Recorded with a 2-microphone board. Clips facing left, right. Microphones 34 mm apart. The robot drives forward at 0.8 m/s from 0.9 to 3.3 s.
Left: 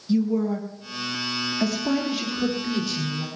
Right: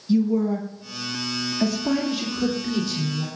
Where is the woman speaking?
Centre (ahead or behind), 1.4 m.